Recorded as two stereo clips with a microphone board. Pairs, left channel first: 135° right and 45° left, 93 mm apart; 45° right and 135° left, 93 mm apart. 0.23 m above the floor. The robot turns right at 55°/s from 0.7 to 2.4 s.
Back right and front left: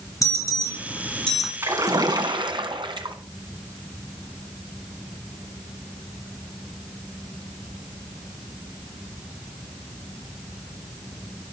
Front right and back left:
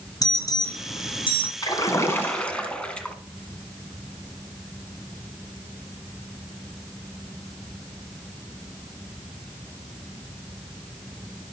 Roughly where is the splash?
Ahead.